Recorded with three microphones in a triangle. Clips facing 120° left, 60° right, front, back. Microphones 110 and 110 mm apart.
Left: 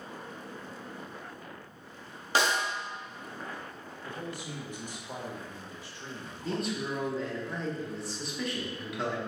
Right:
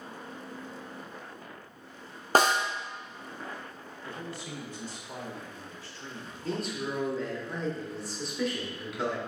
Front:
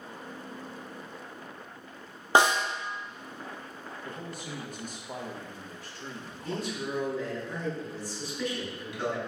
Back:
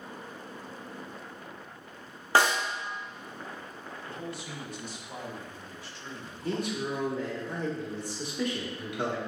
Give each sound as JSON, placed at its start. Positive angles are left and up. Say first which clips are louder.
{"t": 2.4, "sound": "a snare drum", "louder": "right 4 dB, front 2 dB", "azimuth_deg": -65, "distance_m": 0.6}
{"t": 4.0, "sound": "a man speaking", "louder": "left 1 dB, back 1 dB", "azimuth_deg": 45, "distance_m": 1.0}
{"t": 6.4, "sound": "a man speaking", "louder": "even, back 3 dB", "azimuth_deg": -150, "distance_m": 1.3}